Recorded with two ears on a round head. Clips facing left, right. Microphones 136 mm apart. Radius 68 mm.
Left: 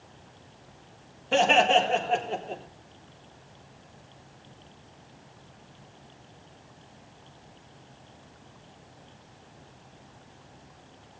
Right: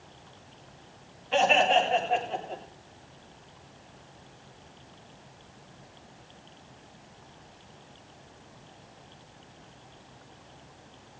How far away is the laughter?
About 4 m.